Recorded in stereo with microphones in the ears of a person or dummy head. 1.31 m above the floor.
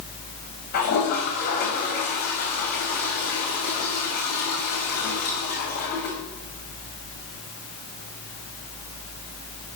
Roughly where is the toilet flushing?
Left.